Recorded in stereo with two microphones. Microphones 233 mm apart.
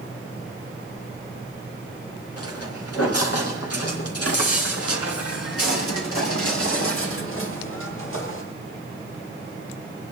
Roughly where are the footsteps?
Left.